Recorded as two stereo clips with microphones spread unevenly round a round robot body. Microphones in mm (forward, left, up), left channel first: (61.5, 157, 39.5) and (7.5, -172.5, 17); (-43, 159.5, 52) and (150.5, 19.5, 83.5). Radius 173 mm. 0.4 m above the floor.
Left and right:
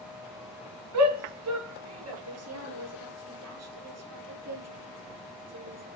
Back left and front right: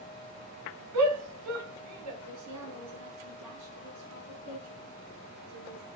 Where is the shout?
60° right, 4.5 m; by 2.1 s 55° right, 4.5 m.